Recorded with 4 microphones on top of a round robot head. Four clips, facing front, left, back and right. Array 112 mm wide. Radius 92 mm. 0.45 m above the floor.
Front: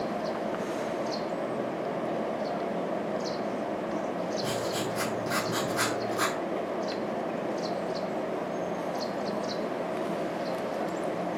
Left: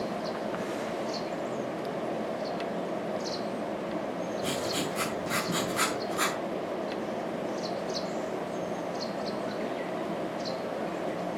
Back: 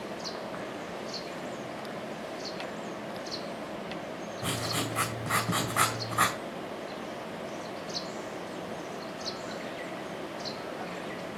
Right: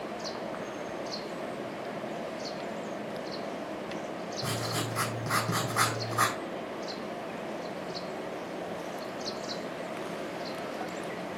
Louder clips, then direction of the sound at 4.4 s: Even, front 4 dB; 140° right.